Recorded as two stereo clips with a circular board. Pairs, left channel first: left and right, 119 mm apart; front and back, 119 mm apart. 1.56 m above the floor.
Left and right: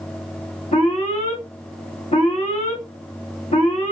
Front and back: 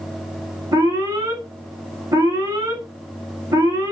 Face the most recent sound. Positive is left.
turn(degrees=120)